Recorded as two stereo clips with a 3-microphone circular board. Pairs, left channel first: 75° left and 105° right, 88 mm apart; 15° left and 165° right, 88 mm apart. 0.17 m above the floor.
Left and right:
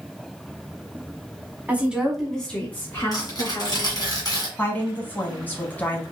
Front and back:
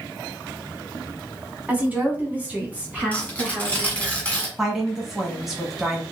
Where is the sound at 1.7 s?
130° right, 1.1 m; by 4.1 s 120° left, 2 m.